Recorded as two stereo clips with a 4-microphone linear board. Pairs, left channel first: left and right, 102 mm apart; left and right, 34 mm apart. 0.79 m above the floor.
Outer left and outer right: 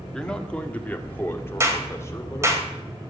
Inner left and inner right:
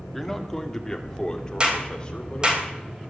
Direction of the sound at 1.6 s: 25° right (ahead or behind).